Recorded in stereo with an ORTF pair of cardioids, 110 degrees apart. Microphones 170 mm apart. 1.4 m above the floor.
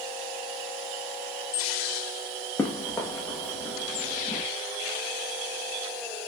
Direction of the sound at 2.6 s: 15° left.